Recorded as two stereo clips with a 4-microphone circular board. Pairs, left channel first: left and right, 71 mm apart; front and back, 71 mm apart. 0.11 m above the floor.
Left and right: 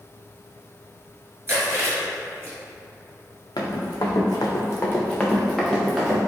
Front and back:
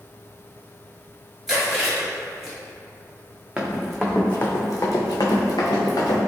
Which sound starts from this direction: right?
Chewing, at 1.5 s.